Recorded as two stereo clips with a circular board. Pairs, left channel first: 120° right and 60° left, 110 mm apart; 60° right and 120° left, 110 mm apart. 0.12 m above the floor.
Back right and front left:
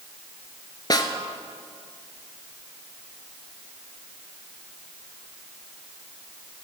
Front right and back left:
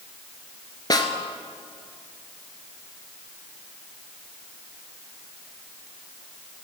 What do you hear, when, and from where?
0.9 s a snare drum: 90° right, 0.9 m